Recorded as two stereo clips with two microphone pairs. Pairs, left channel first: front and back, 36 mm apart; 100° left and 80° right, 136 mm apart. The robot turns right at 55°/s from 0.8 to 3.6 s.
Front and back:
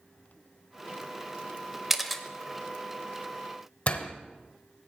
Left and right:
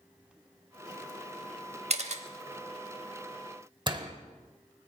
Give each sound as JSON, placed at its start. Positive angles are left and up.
{"t": 1.9, "sound": "a camera shutter", "azimuth_deg": -95, "distance_m": 0.7}
{"t": 3.9, "sound": "a door slam", "azimuth_deg": -35, "distance_m": 1.2}